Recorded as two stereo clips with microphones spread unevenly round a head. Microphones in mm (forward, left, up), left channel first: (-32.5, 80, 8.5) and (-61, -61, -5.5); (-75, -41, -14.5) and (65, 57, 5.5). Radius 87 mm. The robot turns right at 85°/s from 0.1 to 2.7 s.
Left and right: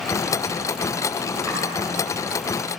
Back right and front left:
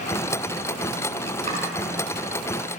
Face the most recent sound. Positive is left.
turn(degrees=90)